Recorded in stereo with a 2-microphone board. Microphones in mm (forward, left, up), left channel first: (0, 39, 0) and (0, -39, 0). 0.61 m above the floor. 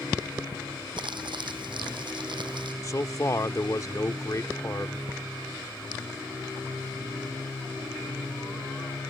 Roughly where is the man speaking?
Left.